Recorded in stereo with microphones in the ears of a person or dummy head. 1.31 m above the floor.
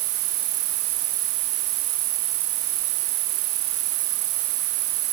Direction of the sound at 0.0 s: 60° right (ahead or behind).